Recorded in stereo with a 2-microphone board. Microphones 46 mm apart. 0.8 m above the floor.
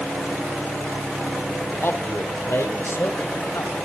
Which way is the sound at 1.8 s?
70° left (ahead or behind).